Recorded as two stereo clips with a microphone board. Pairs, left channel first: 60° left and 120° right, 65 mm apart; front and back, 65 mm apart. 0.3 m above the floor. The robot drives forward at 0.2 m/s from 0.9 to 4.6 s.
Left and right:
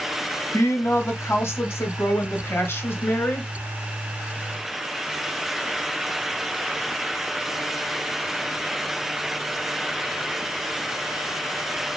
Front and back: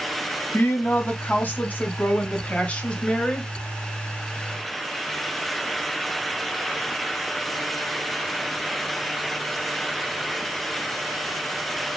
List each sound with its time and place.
0.5 s a woman speaking: 40° left, 1.6 m; by 3.5 s 65° left, 1.4 m